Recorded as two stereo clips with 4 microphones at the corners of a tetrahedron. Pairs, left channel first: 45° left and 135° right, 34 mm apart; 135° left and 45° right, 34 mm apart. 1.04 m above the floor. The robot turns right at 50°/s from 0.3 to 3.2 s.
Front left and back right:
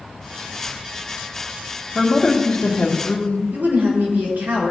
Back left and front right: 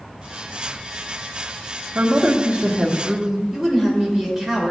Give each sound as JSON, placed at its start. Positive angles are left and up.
{"t": 1.9, "sound": "a man speaking", "azimuth_deg": -45, "distance_m": 1.7}
{"t": 3.5, "sound": "a woman speaking", "azimuth_deg": -120, "distance_m": 4.0}